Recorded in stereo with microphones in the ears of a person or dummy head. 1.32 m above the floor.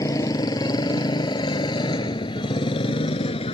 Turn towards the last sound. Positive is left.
turn(degrees=30)  # may be behind; listen again after turning